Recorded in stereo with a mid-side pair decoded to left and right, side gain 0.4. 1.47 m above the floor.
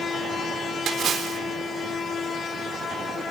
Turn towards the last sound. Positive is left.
turn(degrees=-60)